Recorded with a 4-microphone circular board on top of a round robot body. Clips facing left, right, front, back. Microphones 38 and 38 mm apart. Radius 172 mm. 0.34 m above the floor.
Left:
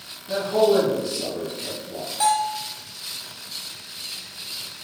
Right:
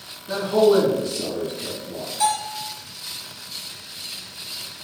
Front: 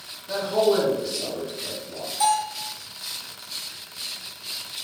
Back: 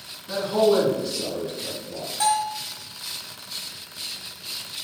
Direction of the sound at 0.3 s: 95° right.